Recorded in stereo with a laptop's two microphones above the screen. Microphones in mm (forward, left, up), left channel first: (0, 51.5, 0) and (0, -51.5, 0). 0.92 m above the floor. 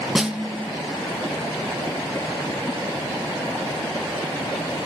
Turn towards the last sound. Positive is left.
turn(degrees=-5)  # may be behind; listen again after turning